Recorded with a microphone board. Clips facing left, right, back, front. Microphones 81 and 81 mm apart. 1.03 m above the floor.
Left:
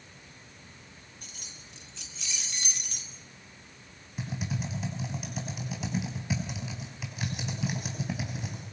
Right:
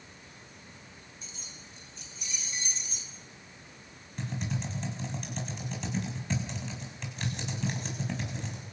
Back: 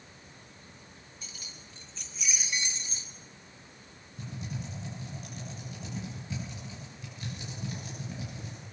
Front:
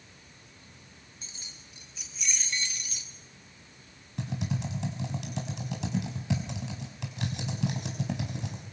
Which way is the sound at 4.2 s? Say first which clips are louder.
Left 1 dB, front 6 dB; 5° left.